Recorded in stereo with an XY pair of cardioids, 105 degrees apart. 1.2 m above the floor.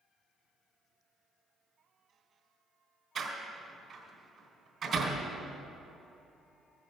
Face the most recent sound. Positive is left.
turn(degrees=-50)